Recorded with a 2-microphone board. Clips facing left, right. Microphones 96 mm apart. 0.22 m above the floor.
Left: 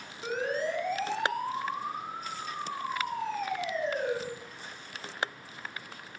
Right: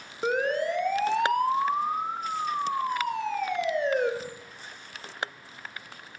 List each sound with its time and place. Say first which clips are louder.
0.2 s a siren: right 5 dB; 55° right (ahead or behind), 3 m; by 4.1 s 70° right (ahead or behind), 4.5 m